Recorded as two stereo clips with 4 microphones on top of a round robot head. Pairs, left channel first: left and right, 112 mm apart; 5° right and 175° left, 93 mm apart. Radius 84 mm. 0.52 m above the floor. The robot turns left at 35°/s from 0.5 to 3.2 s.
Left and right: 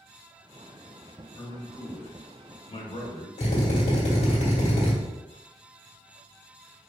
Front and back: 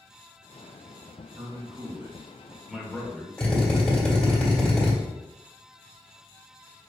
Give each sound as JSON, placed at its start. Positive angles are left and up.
{"t": 1.4, "sound": "a man speaking", "azimuth_deg": 135, "distance_m": 1.8}
{"t": 3.4, "sound": "a drill", "azimuth_deg": 75, "distance_m": 1.9}